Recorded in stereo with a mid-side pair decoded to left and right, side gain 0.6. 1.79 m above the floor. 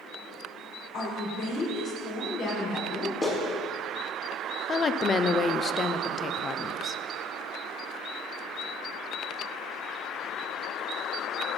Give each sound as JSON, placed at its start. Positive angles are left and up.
{"t": 0.9, "sound": "a woman speaking", "azimuth_deg": 60, "distance_m": 5.5}
{"t": 3.2, "sound": "a clap", "azimuth_deg": 30, "distance_m": 3.0}
{"t": 4.7, "sound": "a woman speaking", "azimuth_deg": 35, "distance_m": 0.7}